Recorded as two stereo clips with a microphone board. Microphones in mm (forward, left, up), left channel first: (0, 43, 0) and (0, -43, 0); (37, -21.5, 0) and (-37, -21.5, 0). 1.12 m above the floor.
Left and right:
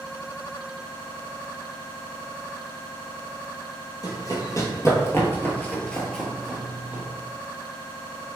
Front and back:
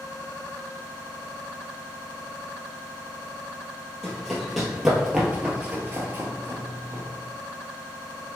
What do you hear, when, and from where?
4.0 s running footsteps: 85° left, 1.5 m; by 7.0 s 160° right, 1.4 m